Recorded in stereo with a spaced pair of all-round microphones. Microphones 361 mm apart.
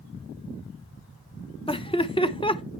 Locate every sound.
1.7 s laughter: 15° left (ahead or behind), 0.8 m